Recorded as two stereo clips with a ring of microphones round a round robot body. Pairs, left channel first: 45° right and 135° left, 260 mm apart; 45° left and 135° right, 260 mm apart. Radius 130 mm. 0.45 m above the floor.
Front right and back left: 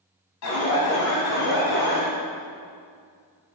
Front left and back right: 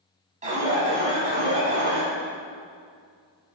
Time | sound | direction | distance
0.4 | an alarm | 70° right | 5.5 m